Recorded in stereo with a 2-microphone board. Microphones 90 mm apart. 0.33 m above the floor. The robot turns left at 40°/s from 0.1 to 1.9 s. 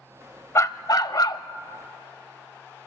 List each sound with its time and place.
0.6 s a dog barking: 130° left, 0.5 m; by 1.4 s 95° left, 0.5 m